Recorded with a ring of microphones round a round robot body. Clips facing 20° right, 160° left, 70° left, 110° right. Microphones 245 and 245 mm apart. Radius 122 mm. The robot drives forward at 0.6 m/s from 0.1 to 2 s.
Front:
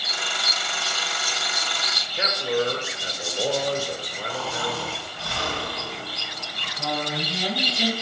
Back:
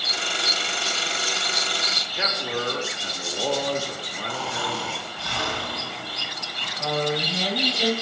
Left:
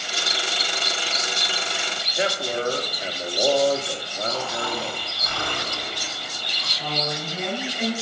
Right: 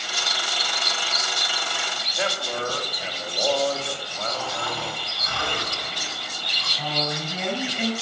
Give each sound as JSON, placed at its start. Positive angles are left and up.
{"t": 2.2, "sound": "a man speaking", "azimuth_deg": 140, "distance_m": 1.6}
{"t": 4.3, "sound": "snoring", "azimuth_deg": 125, "distance_m": 4.0}
{"t": 6.8, "sound": "a woman speaking", "azimuth_deg": -100, "distance_m": 4.5}